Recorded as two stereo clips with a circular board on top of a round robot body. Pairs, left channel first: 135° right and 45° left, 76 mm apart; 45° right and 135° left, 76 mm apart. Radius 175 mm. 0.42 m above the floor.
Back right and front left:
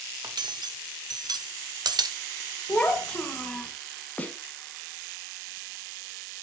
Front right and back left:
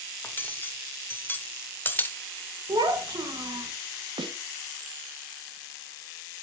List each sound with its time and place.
0.2 s cutlery clinking: 20° left, 0.9 m
2.7 s a child speaking: 150° left, 2.5 m
4.2 s a snare drum: 155° left, 1.1 m